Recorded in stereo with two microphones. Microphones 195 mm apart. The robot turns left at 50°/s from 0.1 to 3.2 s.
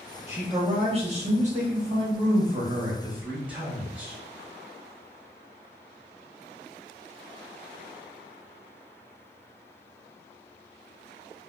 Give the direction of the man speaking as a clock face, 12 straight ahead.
1 o'clock.